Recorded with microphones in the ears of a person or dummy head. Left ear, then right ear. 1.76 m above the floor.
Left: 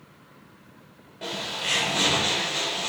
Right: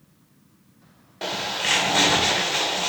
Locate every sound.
1.2 s a bird: 45° right (ahead or behind), 1.4 m